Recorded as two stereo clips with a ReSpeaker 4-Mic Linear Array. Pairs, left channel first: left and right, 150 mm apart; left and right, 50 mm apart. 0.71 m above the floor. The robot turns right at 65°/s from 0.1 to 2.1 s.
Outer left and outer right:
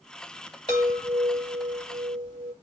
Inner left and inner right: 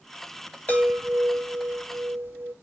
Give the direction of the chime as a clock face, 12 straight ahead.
7 o'clock.